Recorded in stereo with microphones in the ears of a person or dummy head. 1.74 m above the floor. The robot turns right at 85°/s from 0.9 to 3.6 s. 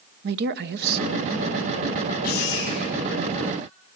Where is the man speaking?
70° right, 0.9 m; by 1.7 s straight ahead, 0.9 m.